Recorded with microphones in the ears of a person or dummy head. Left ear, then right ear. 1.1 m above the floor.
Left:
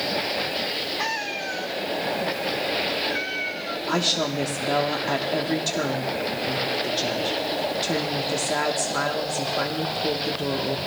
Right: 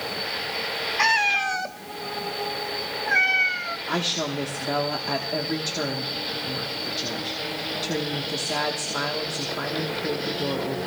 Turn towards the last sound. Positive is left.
turn(degrees=5)  # may be behind; listen again after turning